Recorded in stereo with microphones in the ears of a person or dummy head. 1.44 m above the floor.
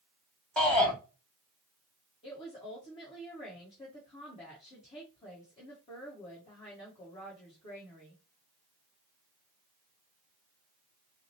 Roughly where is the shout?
Centre.